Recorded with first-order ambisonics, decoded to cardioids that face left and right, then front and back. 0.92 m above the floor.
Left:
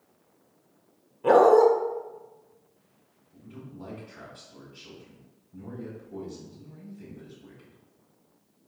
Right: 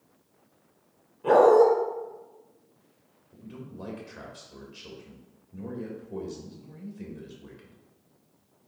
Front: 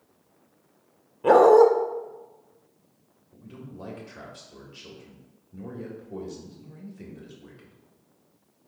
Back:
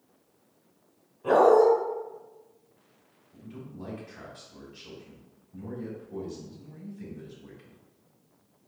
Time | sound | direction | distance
1.2 | a dog barking | 20° left | 0.7 m
3.3 | a man speaking | 40° right | 1.8 m